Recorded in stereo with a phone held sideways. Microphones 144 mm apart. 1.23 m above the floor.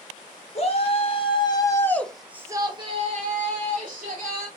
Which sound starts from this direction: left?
A shout, at 0.6 s.